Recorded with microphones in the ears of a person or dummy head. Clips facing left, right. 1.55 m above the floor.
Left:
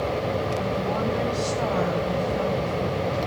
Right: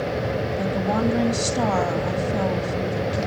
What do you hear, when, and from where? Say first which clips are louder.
0.6 s a woman speaking: right 3 dB; 75° right (ahead or behind), 2.5 m